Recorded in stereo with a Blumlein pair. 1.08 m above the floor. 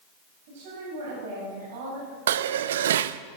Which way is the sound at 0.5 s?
50° right.